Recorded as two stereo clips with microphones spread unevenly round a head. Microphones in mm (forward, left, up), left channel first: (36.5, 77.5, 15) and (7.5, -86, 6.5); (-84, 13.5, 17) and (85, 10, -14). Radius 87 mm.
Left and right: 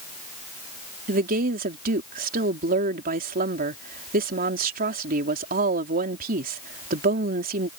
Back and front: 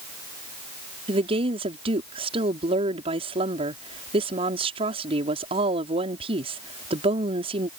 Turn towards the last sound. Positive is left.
turn(degrees=-65)